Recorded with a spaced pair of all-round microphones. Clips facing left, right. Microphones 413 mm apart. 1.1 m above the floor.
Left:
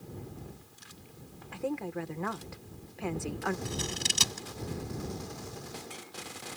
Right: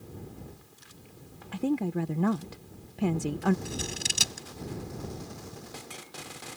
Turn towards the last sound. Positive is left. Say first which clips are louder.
# even
turn(degrees=15)  # may be behind; listen again after turning